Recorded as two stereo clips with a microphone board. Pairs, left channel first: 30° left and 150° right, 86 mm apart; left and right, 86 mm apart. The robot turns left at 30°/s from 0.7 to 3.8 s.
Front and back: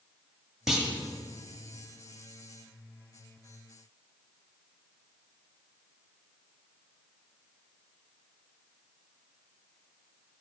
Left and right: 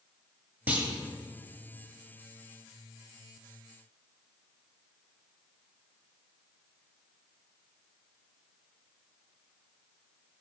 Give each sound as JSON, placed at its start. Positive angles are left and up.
{"t": 0.7, "sound": "a clunk", "azimuth_deg": -75, "distance_m": 1.2}